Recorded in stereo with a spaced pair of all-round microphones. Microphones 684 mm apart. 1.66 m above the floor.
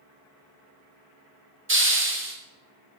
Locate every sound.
1.7 s a hiss: 20° right (ahead or behind), 0.5 m